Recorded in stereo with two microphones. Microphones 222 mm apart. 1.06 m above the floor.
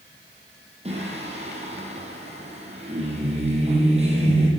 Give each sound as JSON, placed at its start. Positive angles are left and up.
{"t": 0.8, "sound": "singing", "side_deg": -30, "distance_m": 7.5}